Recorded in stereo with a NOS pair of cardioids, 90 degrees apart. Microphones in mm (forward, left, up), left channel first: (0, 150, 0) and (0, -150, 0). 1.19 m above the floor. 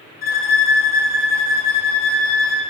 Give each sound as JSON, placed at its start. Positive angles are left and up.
{"t": 0.2, "sound": "a violin", "azimuth_deg": 30, "distance_m": 0.6}